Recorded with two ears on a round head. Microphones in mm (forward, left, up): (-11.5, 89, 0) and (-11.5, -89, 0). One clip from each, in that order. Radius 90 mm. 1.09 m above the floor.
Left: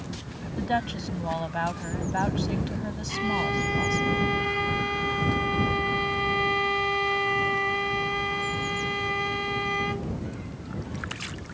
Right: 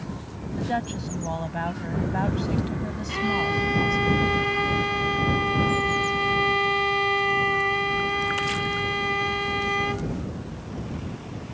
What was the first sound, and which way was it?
A woman speaking, 25° left (ahead or behind).